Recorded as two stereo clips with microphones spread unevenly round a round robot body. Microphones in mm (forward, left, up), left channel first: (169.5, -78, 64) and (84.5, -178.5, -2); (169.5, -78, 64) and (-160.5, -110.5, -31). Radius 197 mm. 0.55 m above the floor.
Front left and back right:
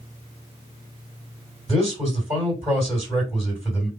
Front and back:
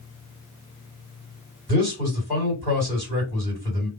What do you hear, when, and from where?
1.7 s a man speaking: 115° left, 2.5 m